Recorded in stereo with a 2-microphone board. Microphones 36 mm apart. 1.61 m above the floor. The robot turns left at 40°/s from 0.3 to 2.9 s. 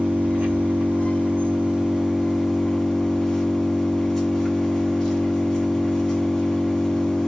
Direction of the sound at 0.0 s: 90° right.